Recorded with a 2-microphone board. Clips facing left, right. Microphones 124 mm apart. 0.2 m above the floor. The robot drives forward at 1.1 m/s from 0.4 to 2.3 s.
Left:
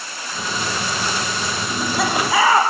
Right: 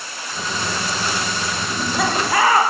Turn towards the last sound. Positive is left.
turn(degrees=5)  # may be behind; listen again after turning